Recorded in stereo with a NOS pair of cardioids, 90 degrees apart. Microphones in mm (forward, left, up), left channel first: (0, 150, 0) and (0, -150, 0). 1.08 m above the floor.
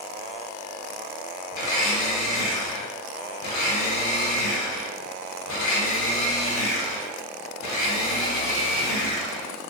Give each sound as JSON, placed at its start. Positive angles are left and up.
{"t": 1.5, "sound": "a blender", "azimuth_deg": 70, "distance_m": 1.0}